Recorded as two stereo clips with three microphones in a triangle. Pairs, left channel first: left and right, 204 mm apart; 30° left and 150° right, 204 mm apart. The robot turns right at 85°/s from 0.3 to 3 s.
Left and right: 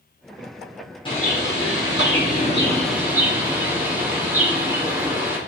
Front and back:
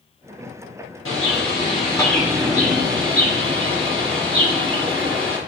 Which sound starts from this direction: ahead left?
A bird, at 1.1 s.